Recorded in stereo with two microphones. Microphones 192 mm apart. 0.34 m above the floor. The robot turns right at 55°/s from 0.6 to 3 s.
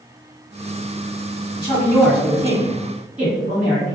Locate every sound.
1.6 s a woman speaking: 145° left, 2.0 m; by 4.0 s 135° right, 2.0 m